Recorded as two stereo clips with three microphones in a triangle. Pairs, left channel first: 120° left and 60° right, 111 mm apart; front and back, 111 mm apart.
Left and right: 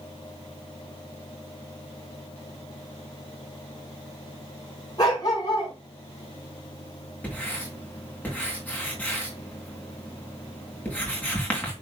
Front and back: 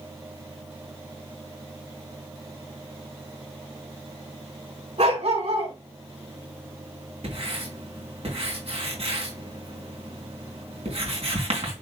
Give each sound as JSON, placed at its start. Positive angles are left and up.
{"t": 5.0, "sound": "a dog barking", "azimuth_deg": 175, "distance_m": 5.0}
{"t": 7.2, "sound": "writing", "azimuth_deg": -165, "distance_m": 3.5}